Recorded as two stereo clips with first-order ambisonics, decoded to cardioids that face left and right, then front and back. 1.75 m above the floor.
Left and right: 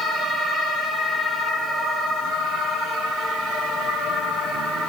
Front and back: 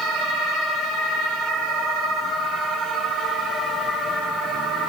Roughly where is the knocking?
No knocking in this recording.